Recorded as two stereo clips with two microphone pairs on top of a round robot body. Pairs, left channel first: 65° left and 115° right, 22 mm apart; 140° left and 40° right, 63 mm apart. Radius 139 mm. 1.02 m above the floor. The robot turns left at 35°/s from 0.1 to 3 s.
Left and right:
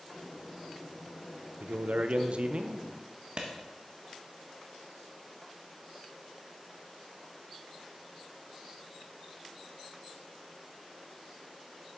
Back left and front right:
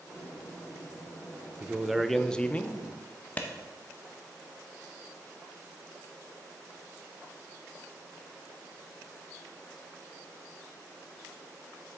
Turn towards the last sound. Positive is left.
turn(degrees=-150)